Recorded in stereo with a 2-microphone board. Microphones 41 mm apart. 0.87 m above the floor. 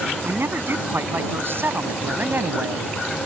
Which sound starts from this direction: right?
A man speaking, at 0.2 s.